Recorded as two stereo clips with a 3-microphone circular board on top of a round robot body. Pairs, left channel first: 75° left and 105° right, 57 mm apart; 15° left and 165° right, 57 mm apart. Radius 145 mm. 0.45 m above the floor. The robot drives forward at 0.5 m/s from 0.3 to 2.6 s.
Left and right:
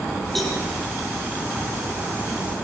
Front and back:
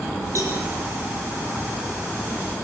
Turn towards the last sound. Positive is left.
turn(degrees=165)